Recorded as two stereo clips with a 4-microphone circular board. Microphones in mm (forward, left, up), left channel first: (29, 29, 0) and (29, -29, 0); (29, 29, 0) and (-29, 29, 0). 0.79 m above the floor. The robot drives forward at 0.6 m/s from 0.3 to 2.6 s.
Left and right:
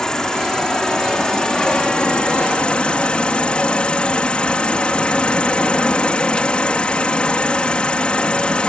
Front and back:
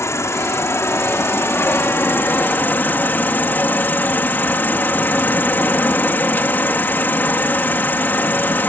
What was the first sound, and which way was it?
An insect, 15° left.